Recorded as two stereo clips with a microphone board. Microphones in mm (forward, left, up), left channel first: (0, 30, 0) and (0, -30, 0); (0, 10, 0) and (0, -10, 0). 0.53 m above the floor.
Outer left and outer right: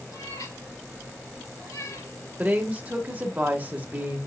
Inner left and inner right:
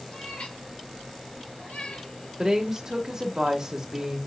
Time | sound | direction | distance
0.1 | a cat meowing | 85° left | 3 m
2.4 | a woman speaking | 25° right (ahead or behind) | 1.5 m